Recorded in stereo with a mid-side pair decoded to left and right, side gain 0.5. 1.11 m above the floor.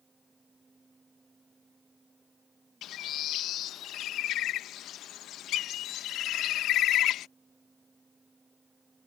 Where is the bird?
65° left.